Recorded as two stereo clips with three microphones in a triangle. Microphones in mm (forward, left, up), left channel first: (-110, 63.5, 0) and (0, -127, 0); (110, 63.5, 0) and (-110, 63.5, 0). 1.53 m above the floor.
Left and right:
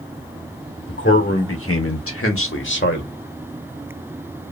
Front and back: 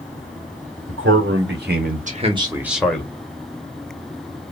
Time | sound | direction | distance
0.9 | a man speaking | 155° left | 1.4 m